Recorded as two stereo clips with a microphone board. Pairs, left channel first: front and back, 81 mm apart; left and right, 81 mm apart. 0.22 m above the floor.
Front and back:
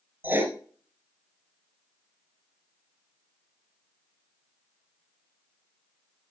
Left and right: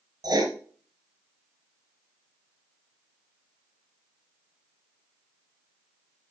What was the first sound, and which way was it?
Writing, 120° right.